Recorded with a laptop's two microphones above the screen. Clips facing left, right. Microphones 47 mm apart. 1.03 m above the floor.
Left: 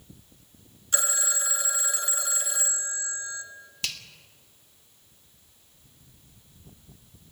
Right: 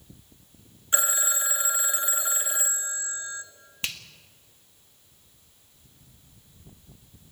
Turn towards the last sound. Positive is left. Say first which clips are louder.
# right 1 dB
turn(degrees=-30)  # may be behind; listen again after turning